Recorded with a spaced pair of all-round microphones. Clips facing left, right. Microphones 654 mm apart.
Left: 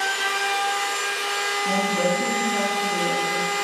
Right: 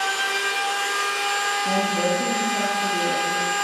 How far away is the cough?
I don't hear a cough.